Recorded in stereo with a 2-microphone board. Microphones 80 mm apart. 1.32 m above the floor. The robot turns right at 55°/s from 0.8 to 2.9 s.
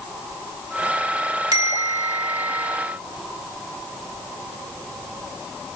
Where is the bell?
125° right, 3 m; by 2.7 s 60° right, 3 m.